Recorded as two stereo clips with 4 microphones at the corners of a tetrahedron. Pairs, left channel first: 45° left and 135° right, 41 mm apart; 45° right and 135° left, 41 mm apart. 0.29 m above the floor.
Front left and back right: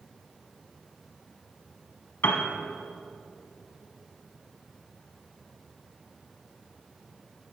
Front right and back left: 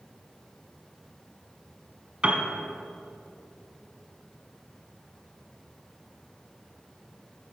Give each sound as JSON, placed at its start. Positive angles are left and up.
{"t": 2.2, "sound": "a piano", "azimuth_deg": 70, "distance_m": 1.0}